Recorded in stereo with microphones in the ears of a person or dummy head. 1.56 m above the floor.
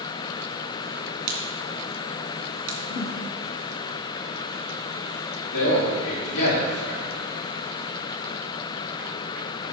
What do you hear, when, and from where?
1.3 s a crack: 60° right (ahead or behind), 2 m
2.9 s a whoosh: 40° left (ahead or behind), 1.0 m
5.5 s a man speaking: 60° left (ahead or behind), 4.5 m